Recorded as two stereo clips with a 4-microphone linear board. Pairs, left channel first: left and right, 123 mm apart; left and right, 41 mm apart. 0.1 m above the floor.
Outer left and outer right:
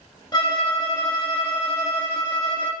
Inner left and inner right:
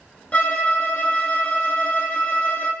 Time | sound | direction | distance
0.3 | a violin | 35° left (ahead or behind) | 0.5 m